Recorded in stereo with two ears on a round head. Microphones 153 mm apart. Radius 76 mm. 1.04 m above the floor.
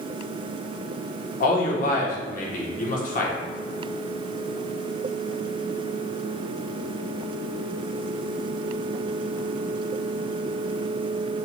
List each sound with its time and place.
1.4 s a man speaking: 50° left (ahead or behind), 1.2 m